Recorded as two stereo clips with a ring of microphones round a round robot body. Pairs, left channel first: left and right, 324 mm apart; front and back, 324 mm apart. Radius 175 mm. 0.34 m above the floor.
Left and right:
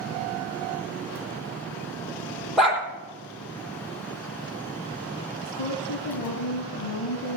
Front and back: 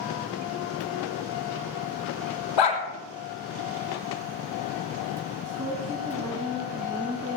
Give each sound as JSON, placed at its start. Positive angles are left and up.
{"t": 2.6, "sound": "a dog barking", "azimuth_deg": 0, "distance_m": 3.0}
{"t": 5.5, "sound": "a woman speaking", "azimuth_deg": 110, "distance_m": 2.5}